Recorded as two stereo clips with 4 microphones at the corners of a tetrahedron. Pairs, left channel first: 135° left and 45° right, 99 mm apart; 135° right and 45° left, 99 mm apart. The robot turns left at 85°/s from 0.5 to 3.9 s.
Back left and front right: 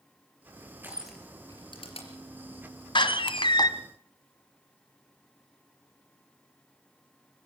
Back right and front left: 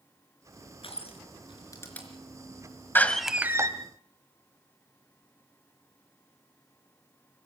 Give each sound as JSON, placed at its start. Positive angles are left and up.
{"t": 0.8, "sound": "crushing", "azimuth_deg": -110, "distance_m": 4.0}
{"t": 3.0, "sound": "a door slam", "azimuth_deg": 160, "distance_m": 1.4}